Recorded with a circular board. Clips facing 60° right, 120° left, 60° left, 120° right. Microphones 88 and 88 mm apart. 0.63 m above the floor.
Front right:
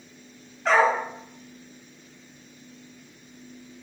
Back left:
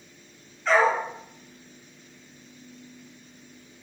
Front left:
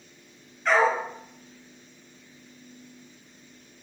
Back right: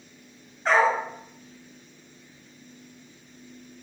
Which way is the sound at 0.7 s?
65° right.